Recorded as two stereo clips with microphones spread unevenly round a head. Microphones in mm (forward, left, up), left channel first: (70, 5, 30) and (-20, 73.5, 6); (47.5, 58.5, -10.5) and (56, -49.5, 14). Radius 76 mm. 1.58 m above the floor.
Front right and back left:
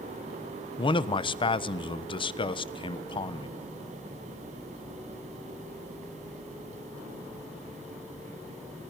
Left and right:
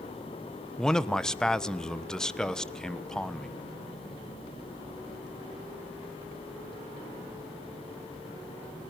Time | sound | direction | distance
0.8 | a man speaking | 10° left | 1.3 m